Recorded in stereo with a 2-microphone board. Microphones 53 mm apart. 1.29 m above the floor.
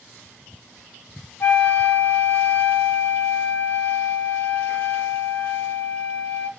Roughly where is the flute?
Left.